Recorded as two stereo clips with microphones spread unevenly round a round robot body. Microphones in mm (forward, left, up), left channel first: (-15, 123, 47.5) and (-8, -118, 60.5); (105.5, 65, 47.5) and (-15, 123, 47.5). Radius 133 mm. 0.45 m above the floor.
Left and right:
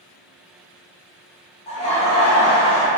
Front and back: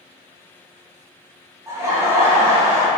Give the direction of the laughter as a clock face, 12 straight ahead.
8 o'clock.